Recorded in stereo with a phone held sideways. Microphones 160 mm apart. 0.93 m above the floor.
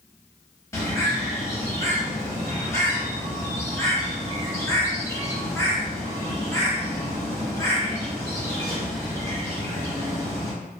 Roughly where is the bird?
Centre.